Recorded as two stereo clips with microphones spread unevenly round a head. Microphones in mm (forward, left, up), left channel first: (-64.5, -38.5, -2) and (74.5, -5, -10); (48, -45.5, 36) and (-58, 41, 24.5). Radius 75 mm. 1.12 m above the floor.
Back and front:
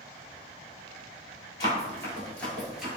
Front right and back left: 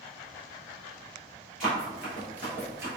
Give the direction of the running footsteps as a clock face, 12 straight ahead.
4 o'clock.